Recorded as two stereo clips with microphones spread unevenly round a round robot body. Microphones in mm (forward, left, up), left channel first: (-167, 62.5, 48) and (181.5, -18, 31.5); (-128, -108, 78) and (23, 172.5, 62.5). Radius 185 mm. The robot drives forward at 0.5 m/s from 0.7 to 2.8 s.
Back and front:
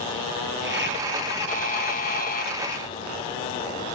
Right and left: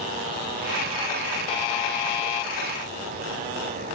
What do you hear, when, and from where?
1.5 s a buzzer: 120° right; by 2.5 s 125° right